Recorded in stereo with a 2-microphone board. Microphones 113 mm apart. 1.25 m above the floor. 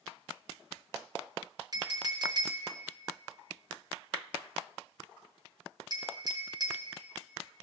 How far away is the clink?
About 1.0 m.